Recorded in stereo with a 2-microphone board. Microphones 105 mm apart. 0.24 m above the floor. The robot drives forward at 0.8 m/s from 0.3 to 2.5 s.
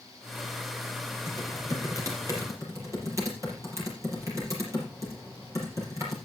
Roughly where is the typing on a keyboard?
Right.